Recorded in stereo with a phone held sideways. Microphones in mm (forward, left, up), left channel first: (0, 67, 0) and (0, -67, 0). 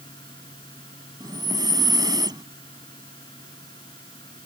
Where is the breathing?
30° right (ahead or behind).